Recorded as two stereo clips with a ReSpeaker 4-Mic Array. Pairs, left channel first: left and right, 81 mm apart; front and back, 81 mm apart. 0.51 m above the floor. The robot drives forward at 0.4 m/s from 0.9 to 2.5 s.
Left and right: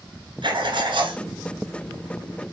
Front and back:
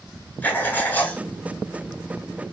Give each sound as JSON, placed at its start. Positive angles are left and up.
{"t": 0.4, "sound": "writing", "azimuth_deg": -70, "distance_m": 1.2}